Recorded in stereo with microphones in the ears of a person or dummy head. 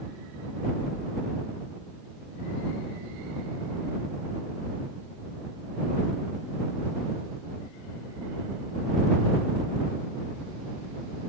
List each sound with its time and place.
Only background noise.